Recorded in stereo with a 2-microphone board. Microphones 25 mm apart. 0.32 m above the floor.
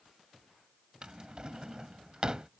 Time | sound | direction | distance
1.0 | a drawer | 35° right (ahead or behind) | ?